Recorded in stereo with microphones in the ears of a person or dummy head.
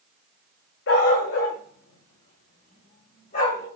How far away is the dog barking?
About 2.5 m.